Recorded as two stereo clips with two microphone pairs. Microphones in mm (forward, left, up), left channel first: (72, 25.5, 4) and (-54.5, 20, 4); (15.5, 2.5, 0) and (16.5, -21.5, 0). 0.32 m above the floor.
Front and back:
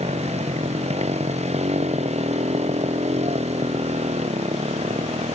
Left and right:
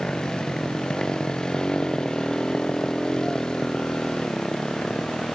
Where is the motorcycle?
150° left.